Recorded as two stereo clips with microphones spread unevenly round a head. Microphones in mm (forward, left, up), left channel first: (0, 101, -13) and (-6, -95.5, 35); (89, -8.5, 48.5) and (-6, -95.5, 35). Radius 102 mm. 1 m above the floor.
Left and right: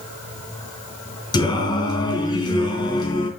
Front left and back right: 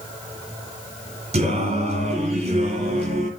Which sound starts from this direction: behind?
Singing, at 1.3 s.